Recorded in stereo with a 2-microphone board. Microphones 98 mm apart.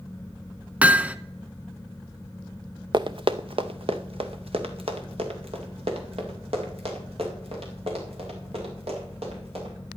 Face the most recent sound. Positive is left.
turn(degrees=-85)